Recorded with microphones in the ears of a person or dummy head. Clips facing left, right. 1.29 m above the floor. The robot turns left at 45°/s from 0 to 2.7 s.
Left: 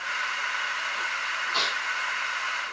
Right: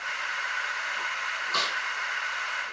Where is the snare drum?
60° right (ahead or behind), 4 m; by 1.8 s 50° right (ahead or behind), 4 m.